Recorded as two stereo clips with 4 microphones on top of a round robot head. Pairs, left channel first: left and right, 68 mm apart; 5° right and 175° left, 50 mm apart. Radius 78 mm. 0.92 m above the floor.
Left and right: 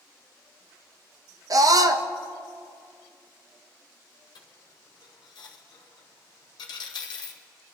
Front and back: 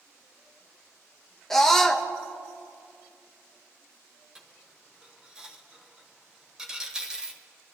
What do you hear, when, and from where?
1.5 s a scream: 85° right, 0.9 m
4.3 s a dropped coin: 100° left, 1.1 m